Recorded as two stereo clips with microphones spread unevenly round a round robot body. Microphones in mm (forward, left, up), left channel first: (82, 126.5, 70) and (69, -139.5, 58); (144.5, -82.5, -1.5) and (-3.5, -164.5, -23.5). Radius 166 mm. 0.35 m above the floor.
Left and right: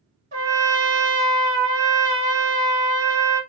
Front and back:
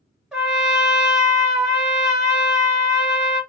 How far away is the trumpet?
About 1.6 m.